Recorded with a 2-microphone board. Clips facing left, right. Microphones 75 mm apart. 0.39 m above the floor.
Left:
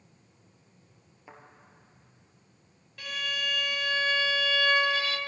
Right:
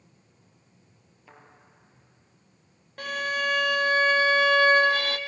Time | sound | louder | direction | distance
1.3 | a thud | left 2 dB | 20° left (ahead or behind) | 3 m
3.0 | a violin | right 6 dB | 55° right (ahead or behind) | 0.5 m